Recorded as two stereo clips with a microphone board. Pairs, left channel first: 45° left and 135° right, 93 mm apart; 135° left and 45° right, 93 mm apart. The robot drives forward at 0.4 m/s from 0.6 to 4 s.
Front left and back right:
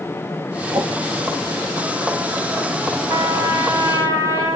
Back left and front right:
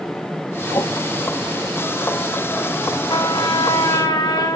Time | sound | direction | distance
0.7 | a whoosh | 175° right | 2 m
3.1 | a trumpet | 170° left | 9 m